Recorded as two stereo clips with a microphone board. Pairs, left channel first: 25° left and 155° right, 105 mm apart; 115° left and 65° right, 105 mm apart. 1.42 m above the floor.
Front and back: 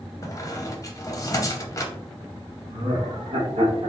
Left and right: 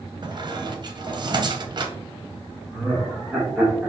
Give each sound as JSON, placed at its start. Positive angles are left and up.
{"t": 0.2, "sound": "a squeak", "azimuth_deg": -30, "distance_m": 0.7}
{"t": 2.7, "sound": "laughter", "azimuth_deg": -150, "distance_m": 0.9}